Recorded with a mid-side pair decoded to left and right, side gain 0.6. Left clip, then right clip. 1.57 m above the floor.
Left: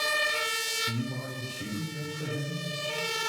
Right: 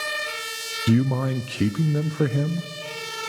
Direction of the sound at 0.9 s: 70° right.